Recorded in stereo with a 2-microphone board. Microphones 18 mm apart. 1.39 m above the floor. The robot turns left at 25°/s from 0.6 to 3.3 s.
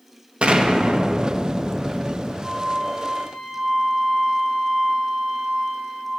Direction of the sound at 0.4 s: 85° right.